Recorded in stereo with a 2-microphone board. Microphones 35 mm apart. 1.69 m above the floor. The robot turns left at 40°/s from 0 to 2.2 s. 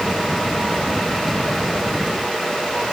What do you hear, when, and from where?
Only background noise.